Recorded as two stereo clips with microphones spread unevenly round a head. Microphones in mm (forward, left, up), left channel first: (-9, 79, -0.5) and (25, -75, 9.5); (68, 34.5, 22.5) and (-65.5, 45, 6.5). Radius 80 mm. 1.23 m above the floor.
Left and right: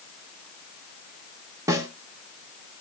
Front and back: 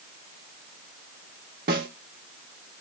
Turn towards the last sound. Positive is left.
turn(degrees=-145)